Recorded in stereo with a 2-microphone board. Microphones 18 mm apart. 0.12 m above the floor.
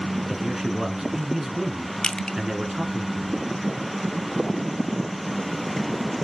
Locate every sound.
0.3 s a man speaking: 25° right (ahead or behind), 1.5 m
2.0 s crushing: 45° left (ahead or behind), 0.7 m